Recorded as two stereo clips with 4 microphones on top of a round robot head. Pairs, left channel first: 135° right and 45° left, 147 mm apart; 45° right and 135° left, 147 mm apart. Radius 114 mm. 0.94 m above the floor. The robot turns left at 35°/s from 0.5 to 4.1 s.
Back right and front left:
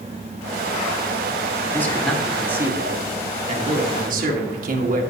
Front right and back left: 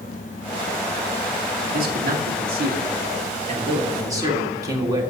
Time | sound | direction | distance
1.7 | a man speaking | 150° left | 1.6 m